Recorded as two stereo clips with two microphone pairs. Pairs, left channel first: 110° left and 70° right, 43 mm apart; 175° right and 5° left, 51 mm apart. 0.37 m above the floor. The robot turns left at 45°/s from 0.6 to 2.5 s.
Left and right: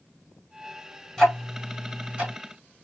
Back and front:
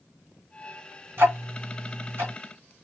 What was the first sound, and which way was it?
Ticking, 35° left.